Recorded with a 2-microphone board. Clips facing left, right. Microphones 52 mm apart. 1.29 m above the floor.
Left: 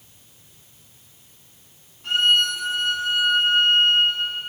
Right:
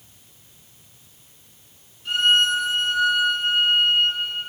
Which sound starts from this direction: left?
A violin, at 2.0 s.